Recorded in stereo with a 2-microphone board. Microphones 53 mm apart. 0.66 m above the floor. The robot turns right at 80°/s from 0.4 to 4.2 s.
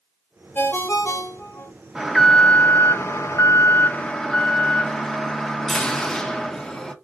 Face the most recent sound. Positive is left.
turn(degrees=165)